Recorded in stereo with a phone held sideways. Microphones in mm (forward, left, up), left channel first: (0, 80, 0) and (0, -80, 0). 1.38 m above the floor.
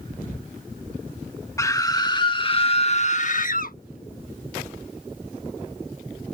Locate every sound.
1.6 s a scream: 20° left (ahead or behind); by 3.8 s 70° left (ahead or behind)